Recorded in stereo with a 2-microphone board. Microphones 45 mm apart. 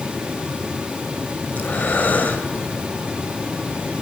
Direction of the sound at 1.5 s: 45° left (ahead or behind).